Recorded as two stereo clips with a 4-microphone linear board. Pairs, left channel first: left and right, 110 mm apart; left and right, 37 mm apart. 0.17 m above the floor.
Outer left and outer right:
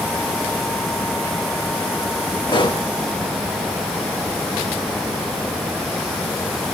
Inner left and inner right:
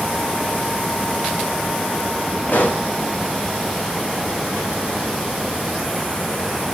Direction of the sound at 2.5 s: 40° left (ahead or behind).